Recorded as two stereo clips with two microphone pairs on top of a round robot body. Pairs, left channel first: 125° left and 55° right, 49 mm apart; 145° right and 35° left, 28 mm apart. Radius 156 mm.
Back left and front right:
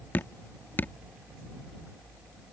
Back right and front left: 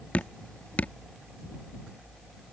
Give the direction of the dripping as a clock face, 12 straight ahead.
6 o'clock.